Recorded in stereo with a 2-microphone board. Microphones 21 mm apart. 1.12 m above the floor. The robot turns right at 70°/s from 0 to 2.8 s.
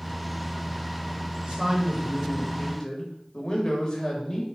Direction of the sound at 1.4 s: 60° right.